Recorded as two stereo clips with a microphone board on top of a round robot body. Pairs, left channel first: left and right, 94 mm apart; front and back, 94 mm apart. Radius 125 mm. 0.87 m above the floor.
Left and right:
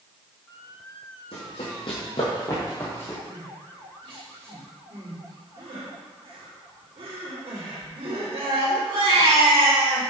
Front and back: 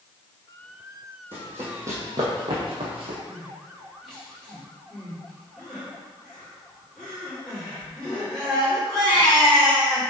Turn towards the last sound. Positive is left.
turn(degrees=-85)